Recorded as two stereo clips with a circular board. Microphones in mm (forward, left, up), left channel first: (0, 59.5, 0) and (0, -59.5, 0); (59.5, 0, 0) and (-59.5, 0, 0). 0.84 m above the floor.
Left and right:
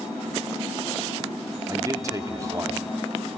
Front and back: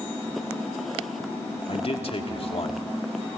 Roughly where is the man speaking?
Ahead right.